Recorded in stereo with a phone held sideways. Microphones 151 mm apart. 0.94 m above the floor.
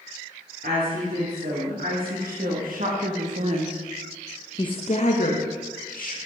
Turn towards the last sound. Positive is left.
turn(degrees=70)  # may be behind; listen again after turning